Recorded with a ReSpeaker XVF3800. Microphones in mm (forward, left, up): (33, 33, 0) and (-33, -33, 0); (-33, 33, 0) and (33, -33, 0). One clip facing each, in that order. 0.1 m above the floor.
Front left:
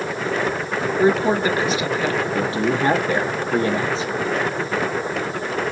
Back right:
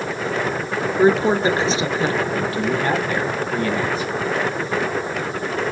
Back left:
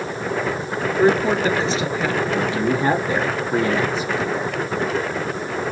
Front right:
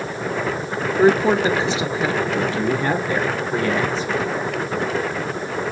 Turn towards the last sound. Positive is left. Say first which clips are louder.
# front left 1 dB, even
turn(degrees=80)